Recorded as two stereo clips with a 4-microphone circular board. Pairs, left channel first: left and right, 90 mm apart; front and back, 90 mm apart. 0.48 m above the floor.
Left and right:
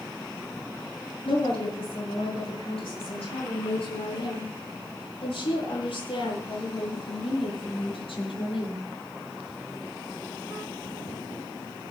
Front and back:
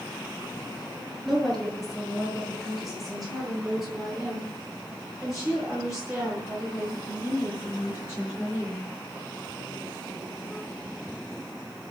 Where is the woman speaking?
85° left, 8.5 m; by 8.8 s 100° left, 14.5 m.